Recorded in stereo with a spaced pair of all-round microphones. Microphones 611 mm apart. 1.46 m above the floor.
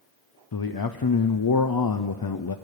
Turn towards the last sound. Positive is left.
turn(degrees=40)  # may be behind; listen again after turning